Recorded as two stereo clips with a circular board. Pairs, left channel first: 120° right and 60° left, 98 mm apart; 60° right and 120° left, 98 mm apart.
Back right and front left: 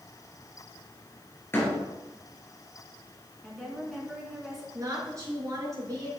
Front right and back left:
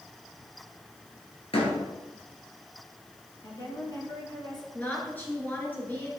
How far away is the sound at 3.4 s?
About 2.5 m.